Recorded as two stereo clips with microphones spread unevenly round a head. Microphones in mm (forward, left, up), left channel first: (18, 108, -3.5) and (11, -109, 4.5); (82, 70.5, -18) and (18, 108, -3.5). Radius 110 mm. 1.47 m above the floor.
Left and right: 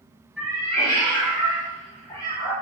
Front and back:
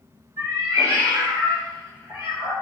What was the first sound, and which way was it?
A cat meowing, straight behind.